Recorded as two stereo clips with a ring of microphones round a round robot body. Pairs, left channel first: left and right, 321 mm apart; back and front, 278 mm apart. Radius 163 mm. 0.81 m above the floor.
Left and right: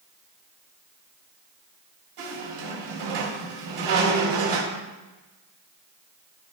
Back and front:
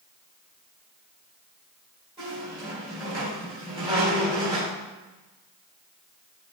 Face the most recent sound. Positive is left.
turn(degrees=-75)